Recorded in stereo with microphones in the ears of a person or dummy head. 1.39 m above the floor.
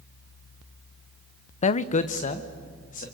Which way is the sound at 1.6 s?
35° left (ahead or behind).